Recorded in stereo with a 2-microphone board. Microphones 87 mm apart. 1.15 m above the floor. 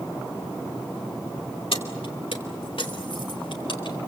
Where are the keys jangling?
85° left, 3 m; by 4.0 s 70° left (ahead or behind), 4.5 m.